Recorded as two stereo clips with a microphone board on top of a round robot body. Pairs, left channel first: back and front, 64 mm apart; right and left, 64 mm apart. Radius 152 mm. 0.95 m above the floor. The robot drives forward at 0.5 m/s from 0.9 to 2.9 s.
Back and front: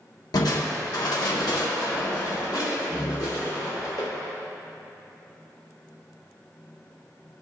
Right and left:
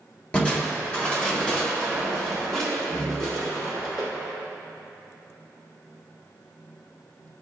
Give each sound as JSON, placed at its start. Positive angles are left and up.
{"t": 0.3, "sound": "crushing", "azimuth_deg": -165, "distance_m": 1.1}